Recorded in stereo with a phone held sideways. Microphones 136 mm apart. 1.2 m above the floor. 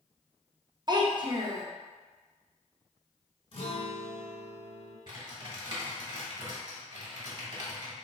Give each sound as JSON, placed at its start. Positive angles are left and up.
{"t": 0.9, "sound": "a child speaking", "side_deg": -35, "distance_m": 0.5}
{"t": 3.5, "sound": "a guitar", "side_deg": 45, "distance_m": 1.6}
{"t": 5.1, "sound": "typing on a keyboard", "side_deg": -40, "distance_m": 1.1}